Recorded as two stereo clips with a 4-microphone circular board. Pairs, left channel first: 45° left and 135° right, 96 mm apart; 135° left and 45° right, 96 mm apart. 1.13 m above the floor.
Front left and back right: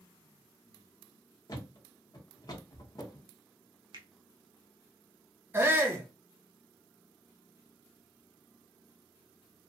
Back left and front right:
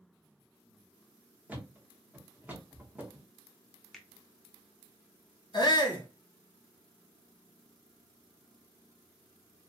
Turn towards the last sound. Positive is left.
turn(degrees=160)